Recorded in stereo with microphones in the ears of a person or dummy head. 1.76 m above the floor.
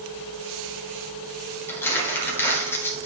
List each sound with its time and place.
1.7 s crumpling: 10° left (ahead or behind), 2 m